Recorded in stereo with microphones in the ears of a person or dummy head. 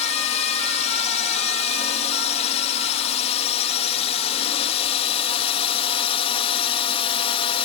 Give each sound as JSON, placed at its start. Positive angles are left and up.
{"t": 0.0, "sound": "a drone", "side_deg": 40}